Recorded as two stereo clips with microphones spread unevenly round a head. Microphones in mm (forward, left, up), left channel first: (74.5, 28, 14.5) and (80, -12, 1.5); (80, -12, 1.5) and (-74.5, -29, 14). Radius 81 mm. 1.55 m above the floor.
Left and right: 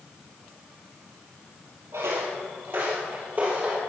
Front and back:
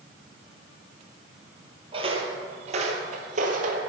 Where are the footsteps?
130° right, 2.5 m; by 3.8 s 175° right, 2.5 m.